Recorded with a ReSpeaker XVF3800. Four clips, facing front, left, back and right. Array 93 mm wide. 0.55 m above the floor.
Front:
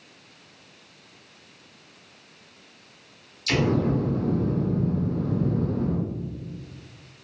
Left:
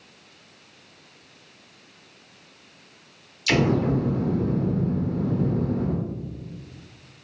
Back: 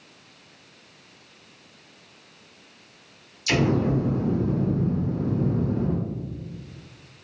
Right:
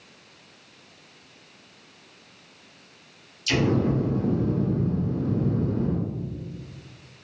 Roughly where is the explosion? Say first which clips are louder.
Left 2 dB, back 1 dB; left.